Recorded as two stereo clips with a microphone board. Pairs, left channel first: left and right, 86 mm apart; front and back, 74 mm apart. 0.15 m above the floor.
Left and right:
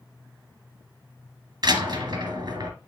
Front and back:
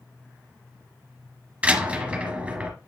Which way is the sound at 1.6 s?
110° right.